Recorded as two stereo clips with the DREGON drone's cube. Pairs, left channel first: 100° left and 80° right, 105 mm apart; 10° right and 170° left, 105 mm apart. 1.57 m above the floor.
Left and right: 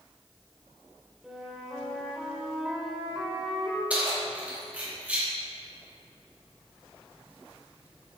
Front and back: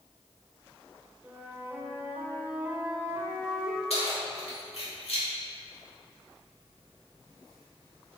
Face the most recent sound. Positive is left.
turn(degrees=-5)